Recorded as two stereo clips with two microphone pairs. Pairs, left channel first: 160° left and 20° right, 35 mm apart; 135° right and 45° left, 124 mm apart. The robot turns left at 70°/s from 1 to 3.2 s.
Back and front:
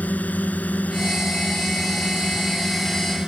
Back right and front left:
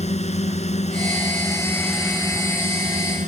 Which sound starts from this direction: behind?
A drone, at 0.0 s.